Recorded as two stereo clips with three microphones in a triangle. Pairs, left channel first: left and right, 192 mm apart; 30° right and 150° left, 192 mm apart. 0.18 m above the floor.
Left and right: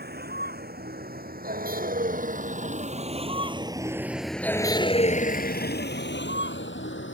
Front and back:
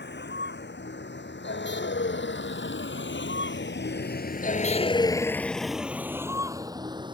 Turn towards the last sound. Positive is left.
turn(degrees=85)